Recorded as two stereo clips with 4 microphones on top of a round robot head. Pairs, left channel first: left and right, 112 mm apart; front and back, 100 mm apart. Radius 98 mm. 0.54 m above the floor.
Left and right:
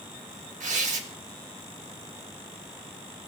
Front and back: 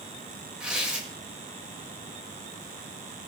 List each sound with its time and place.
0.6 s tearing paper: 95° right, 1.9 m